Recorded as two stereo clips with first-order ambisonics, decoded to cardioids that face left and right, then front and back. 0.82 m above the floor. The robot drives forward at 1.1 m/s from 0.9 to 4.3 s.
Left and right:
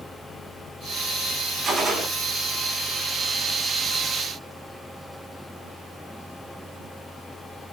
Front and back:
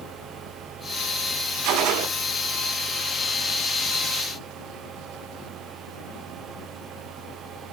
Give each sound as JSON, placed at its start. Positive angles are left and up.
{"t": 1.6, "sound": "a gunshot", "azimuth_deg": -165, "distance_m": 2.0}